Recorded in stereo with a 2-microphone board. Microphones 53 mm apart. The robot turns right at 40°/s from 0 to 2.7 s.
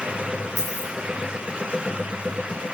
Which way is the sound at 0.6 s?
70° left (ahead or behind).